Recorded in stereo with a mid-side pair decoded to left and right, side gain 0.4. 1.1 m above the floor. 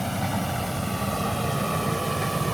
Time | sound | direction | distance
0.0 | a vehicle | straight ahead | ?